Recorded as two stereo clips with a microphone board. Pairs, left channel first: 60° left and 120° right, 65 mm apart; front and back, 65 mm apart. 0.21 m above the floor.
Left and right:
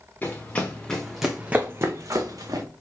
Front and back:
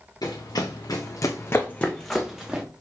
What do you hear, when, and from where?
0.2 s running footsteps: straight ahead, 1.5 m; by 2.6 s 105° right, 1.3 m